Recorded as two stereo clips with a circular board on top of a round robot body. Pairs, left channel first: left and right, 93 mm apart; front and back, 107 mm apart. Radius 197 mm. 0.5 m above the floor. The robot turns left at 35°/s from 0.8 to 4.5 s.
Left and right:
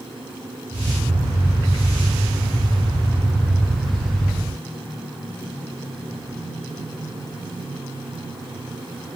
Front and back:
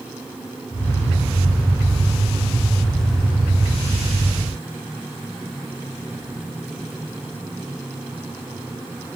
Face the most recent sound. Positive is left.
No sound to turn to.